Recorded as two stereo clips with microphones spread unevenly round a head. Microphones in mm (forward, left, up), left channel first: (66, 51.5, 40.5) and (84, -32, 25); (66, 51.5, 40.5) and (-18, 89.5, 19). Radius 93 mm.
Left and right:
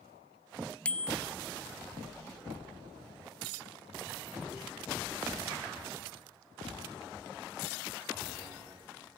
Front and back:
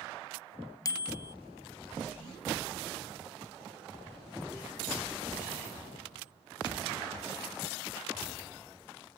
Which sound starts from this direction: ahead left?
A bicycle bell, at 0.8 s.